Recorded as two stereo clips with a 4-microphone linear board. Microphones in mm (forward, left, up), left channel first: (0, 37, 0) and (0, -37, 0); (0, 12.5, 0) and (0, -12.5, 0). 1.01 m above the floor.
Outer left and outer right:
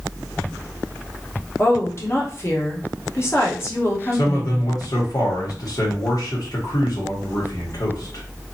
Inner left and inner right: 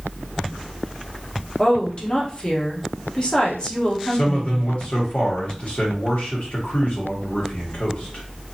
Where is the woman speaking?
35° left (ahead or behind), 1.0 m.